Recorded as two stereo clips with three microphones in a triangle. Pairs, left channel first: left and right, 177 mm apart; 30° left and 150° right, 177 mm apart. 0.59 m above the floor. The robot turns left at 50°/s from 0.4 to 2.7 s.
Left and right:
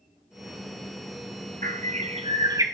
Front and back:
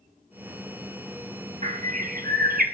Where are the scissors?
No scissors in this recording.